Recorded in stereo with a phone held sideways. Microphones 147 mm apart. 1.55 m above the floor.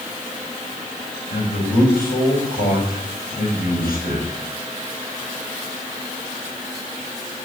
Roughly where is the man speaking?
Left.